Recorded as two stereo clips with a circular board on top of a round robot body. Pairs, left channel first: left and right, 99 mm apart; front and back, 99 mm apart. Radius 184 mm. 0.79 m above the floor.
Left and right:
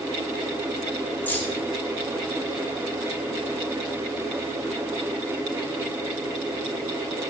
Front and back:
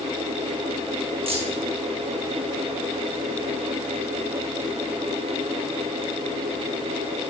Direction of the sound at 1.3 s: 160° left.